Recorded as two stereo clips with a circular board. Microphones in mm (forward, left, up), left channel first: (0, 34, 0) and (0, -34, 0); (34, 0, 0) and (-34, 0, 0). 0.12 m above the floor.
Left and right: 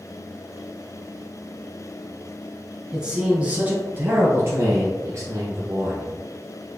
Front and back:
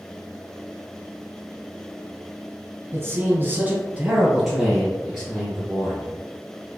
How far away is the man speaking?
About 1.3 m.